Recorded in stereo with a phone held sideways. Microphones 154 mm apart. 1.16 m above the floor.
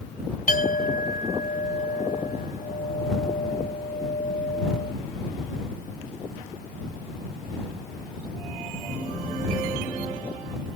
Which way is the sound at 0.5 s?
65° left (ahead or behind).